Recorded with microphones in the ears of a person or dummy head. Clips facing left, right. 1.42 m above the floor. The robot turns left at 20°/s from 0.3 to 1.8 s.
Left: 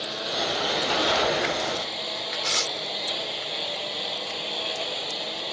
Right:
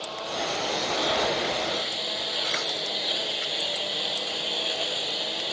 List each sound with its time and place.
0.0 s a lawn mower: 25° left; by 5.5 s 5° right
2.4 s tearing paper: 45° left (ahead or behind)